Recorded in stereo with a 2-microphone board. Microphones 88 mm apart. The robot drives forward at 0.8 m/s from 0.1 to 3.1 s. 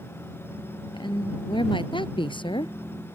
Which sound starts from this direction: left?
A woman speaking, at 0.9 s.